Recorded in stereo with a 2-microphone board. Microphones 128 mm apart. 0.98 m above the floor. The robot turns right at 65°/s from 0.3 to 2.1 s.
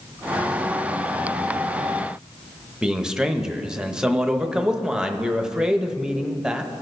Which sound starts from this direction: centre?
A man speaking, at 2.8 s.